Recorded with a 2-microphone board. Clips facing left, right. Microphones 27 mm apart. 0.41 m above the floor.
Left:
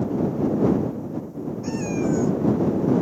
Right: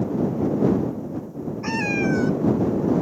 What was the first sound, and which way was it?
A cat meowing, 55° right (ahead or behind).